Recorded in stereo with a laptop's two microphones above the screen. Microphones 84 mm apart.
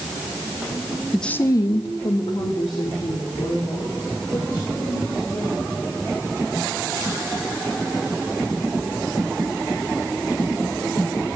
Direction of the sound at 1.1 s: 5° right (ahead or behind).